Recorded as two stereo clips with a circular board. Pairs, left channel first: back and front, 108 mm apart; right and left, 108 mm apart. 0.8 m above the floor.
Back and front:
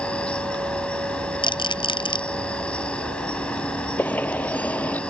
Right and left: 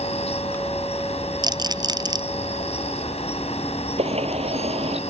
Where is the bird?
105° left.